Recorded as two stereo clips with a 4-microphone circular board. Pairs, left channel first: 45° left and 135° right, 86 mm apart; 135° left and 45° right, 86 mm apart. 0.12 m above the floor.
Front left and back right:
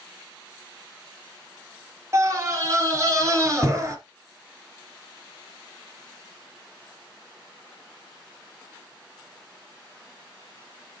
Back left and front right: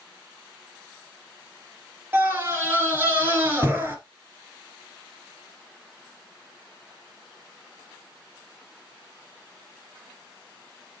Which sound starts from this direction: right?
A scream, at 2.1 s.